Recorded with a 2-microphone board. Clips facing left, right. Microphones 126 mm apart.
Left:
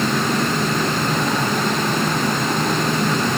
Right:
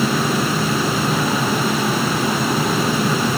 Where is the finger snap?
I don't hear a finger snap.